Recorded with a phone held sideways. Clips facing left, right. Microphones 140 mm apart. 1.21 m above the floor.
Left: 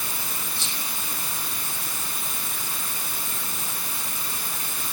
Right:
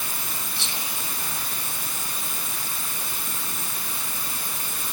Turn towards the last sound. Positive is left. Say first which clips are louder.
# right 1 dB
turn(degrees=-75)  # may be behind; listen again after turning